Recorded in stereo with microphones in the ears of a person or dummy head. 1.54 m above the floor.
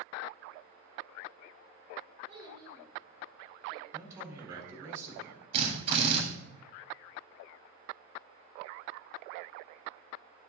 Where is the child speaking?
25° right (ahead or behind), 3.5 m; by 3.8 s 5° left (ahead or behind), 4 m.